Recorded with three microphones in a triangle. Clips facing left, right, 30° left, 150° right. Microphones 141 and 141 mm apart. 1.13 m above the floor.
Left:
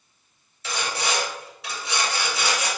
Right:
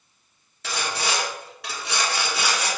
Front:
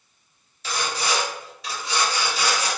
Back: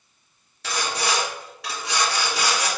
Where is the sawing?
120° right, 1.7 m.